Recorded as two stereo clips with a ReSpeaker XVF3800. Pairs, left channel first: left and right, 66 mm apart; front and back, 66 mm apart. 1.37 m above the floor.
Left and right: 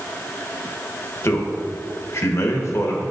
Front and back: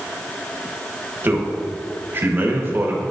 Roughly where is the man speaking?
Behind left.